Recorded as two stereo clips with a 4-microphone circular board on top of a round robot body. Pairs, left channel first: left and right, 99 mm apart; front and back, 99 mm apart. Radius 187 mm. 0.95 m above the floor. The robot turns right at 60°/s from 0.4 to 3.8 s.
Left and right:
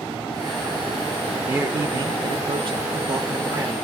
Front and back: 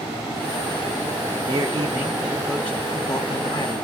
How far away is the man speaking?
About 0.8 m.